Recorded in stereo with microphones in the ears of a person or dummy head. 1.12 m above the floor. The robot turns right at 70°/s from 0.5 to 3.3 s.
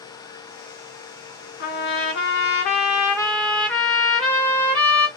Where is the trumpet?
60° left, 0.8 m; by 5.1 s straight behind, 0.8 m.